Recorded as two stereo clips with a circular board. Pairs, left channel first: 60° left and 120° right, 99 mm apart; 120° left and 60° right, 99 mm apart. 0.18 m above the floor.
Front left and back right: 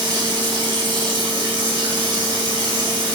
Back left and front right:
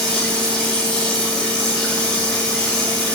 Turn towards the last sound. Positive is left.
turn(degrees=-160)